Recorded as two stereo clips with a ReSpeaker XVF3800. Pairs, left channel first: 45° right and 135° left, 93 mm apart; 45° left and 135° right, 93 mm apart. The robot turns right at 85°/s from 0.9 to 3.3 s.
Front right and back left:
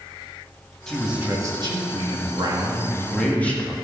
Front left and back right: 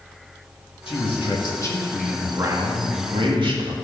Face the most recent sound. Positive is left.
turn(degrees=-120)